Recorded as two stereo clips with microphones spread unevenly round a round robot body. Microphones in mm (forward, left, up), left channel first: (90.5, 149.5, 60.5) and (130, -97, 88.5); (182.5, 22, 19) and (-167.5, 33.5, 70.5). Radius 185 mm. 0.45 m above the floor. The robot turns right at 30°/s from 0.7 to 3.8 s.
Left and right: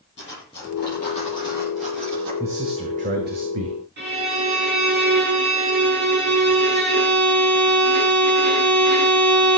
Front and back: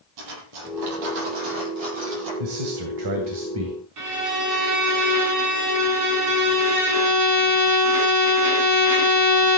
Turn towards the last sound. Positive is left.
turn(degrees=-140)